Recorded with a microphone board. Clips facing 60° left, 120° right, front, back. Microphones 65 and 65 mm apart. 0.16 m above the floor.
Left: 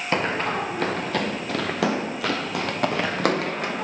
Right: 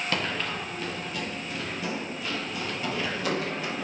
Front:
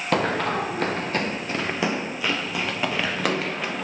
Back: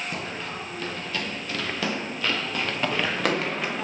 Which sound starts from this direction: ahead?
Running footsteps, at 0.1 s.